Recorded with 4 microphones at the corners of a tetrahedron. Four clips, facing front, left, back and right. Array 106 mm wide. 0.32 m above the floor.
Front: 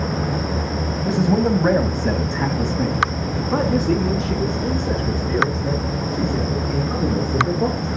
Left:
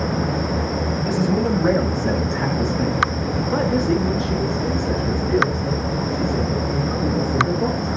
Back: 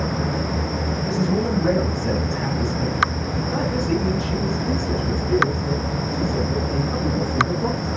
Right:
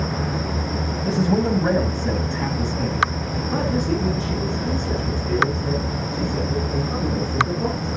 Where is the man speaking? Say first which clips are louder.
Right 1 dB, front 5 dB; 35° right, 1.4 m; by 7.9 s 25° left, 5.5 m.